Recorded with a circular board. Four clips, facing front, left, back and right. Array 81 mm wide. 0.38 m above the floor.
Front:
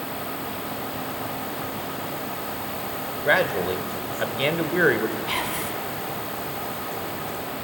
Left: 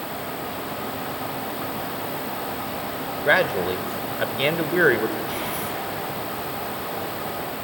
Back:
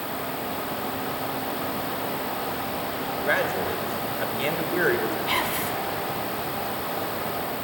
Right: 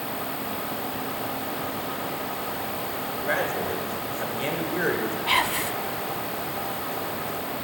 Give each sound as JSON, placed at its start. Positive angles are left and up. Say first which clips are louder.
{"t": 3.2, "sound": "a man speaking", "louder": "left 7 dB, front 4 dB", "azimuth_deg": 65, "distance_m": 1.4}
{"t": 5.3, "sound": "whispering", "louder": "right 3 dB, back 2 dB", "azimuth_deg": -100, "distance_m": 3.0}